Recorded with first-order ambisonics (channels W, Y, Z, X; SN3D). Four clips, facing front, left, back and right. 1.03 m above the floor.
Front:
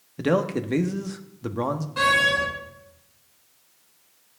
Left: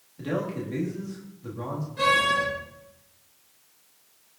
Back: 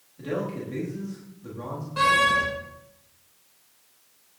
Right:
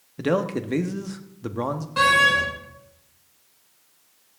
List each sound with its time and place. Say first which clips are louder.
0.2 s a man speaking: right 6 dB, front 7 dB; 40° right, 1.4 m
2.0 s a door slam: right 5 dB, even; 85° right, 7 m